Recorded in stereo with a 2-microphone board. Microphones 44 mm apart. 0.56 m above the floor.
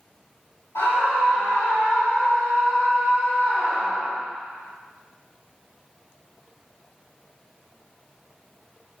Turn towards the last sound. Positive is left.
turn(degrees=50)  # may be behind; listen again after turning